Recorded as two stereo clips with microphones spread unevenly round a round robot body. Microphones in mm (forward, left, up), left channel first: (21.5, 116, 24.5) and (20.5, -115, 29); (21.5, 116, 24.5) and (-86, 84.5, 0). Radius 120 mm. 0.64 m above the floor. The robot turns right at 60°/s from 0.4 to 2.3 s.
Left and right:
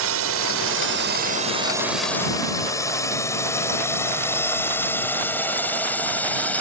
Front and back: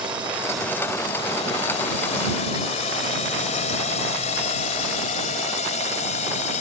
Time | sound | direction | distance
0.0 | a drone | 90° right | ?